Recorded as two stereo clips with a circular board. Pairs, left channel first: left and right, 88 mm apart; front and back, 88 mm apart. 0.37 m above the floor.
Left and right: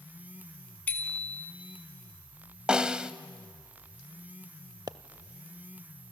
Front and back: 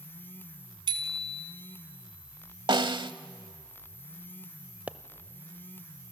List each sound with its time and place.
0.9 s a bicycle bell: 160° left, 2.5 m
2.7 s a snare drum: 170° right, 0.8 m
4.9 s a pop: 110° right, 0.7 m